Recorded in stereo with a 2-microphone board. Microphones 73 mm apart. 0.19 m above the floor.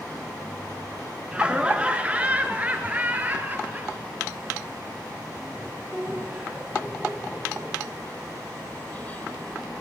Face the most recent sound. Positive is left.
turn(degrees=-30)  # may be behind; listen again after turning